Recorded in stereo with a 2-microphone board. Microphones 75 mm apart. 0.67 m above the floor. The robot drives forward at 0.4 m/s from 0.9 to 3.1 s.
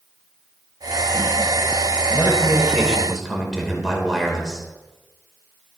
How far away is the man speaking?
About 3 m.